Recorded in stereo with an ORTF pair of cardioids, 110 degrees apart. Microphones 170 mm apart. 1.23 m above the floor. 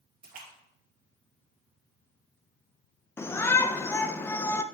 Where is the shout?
15° left, 0.6 m.